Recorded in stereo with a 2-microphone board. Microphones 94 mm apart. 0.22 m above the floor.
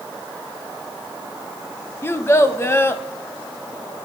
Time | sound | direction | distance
2.0 | a child speaking | 25° left (ahead or behind) | 0.6 m